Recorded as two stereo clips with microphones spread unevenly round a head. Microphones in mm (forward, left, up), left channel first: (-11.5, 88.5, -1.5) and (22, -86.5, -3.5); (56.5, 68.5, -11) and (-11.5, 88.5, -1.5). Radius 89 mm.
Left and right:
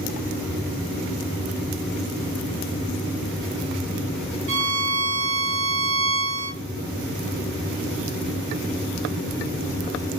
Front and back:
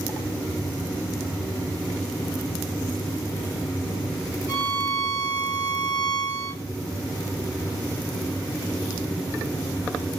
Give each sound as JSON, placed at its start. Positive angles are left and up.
{"t": 4.5, "sound": "a violin", "azimuth_deg": -80, "distance_m": 0.6}